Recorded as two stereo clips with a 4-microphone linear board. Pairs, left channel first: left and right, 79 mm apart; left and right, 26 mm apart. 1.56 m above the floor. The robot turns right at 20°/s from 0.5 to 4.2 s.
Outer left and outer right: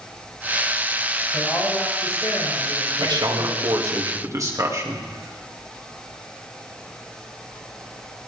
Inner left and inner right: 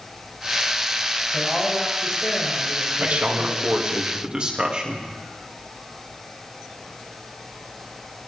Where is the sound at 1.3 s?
35° left, 8 m; by 3.9 s 85° left, 8 m.